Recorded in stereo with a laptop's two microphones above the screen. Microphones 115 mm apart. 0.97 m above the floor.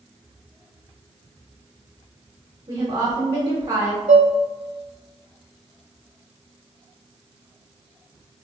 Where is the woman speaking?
45° right (ahead or behind), 1.0 m.